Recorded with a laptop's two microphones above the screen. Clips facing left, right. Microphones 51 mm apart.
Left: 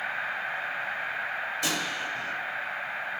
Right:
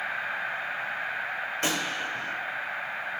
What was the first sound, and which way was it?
A gunshot, 40° right (ahead or behind).